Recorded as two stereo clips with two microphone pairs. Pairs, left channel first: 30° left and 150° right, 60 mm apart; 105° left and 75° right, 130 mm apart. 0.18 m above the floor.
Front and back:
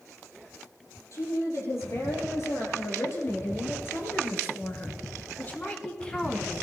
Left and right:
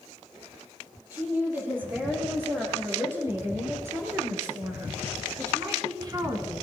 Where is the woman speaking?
Straight ahead, 4.5 m; by 6.6 s 60° right, 1.2 m.